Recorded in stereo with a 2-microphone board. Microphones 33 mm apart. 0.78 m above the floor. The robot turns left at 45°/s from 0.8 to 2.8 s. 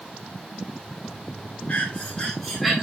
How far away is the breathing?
About 2.5 m.